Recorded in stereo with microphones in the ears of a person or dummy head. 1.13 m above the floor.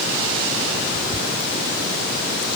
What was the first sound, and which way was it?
Only background noise.